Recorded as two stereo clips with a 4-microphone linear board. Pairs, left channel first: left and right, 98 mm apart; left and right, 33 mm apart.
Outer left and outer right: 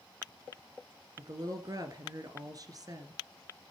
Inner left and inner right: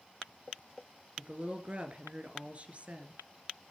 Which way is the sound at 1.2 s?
40° right (ahead or behind).